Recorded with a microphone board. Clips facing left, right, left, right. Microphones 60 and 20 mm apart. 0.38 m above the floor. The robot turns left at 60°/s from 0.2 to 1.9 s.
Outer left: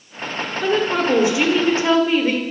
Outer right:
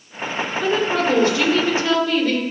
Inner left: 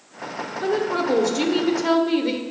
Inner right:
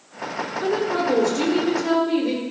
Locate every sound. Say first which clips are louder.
0.6 s a woman speaking: outer left 1 dB, even; 5° left (ahead or behind), 1.0 m; by 2.4 s 25° left (ahead or behind), 1.0 m